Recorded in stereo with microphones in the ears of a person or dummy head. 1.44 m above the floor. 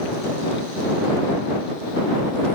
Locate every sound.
Only background noise.